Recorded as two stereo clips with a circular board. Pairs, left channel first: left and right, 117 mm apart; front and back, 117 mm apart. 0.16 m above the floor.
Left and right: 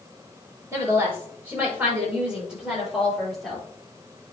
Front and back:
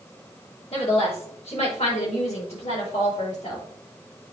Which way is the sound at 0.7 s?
25° right.